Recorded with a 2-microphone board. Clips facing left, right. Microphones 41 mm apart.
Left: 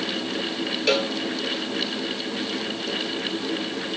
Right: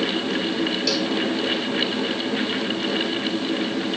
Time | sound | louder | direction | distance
0.9 | a cowbell | left 1 dB | 40° left (ahead or behind) | ?